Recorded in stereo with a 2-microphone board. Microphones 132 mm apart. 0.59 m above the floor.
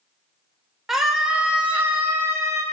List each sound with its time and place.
0.9 s a scream: 5° right (ahead or behind), 2.5 m; by 2.6 s 25° right (ahead or behind), 1.9 m